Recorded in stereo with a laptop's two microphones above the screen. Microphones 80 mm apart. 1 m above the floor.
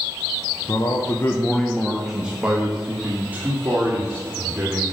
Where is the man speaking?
50° left (ahead or behind), 0.6 m; by 4.8 s 25° right (ahead or behind), 3 m.